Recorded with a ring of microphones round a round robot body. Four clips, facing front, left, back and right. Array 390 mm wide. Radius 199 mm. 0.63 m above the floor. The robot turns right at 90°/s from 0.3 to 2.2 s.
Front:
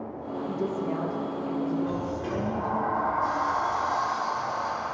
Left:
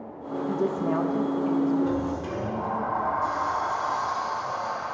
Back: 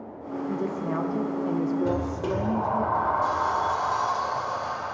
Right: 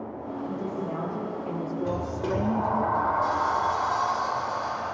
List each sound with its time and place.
0.5 s a woman speaking: 70° left, 1.4 m; by 2.9 s 135° right, 1.4 m
1.9 s a sliding door: straight behind, 2.5 m; by 5.0 s 145° right, 2.5 m